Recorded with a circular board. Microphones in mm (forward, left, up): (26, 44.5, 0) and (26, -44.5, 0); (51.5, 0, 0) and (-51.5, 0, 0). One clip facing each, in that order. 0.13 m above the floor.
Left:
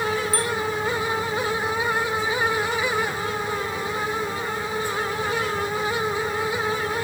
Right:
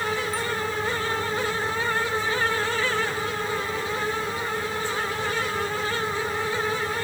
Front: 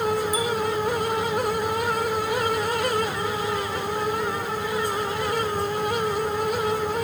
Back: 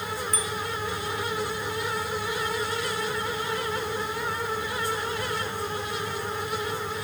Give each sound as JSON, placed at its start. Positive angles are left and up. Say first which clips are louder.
{"t": 0.3, "sound": "a bicycle bell", "louder": "left 3 dB, front 7 dB", "azimuth_deg": 85}